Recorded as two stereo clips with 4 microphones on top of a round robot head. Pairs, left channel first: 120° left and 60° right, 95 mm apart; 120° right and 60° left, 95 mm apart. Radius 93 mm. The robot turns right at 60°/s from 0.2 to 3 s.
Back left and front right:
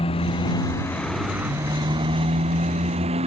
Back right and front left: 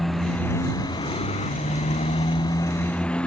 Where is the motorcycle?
150° left; by 3.3 s 40° right.